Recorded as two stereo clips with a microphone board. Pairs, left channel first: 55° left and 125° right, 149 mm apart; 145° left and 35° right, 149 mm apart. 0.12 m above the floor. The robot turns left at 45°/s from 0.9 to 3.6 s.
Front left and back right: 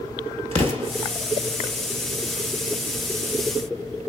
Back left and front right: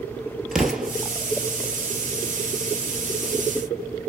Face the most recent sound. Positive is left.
turn(degrees=115)